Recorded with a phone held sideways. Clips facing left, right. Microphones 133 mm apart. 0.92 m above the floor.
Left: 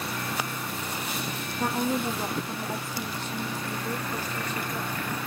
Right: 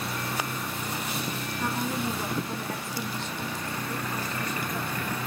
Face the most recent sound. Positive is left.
turn(degrees=-10)  # may be behind; listen again after turning